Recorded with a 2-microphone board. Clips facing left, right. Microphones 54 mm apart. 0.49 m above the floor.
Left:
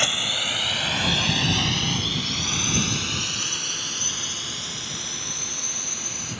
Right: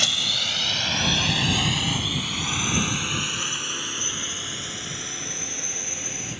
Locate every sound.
0.0 s a drone: 20° left (ahead or behind); by 6.4 s 25° right (ahead or behind)